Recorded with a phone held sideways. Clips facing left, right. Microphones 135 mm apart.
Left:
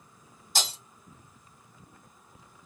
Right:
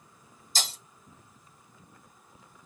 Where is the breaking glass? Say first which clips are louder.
Left 3 dB; 65° left (ahead or behind), 1.9 m.